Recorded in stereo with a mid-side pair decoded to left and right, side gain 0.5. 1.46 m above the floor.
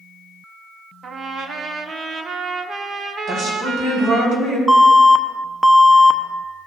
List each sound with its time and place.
1.0 s a trumpet: 50° right, 0.9 m
3.3 s a woman speaking: 65° right, 4 m
4.7 s an alarm: 10° right, 0.7 m